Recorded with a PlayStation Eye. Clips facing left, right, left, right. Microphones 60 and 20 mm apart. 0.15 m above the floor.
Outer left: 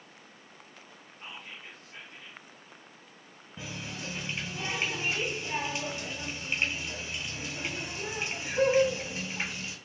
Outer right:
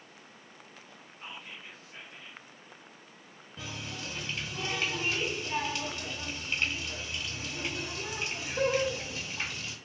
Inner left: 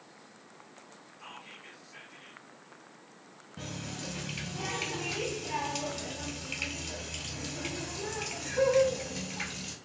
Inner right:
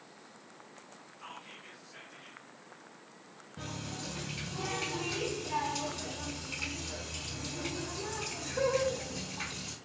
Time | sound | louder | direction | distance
1.2 | whispering | even, inner left 1 dB | 5° right (ahead or behind) | 1.3 m
3.6 | a running tap | outer left 1 dB, inner left 1 dB | 20° left (ahead or behind) | 1.7 m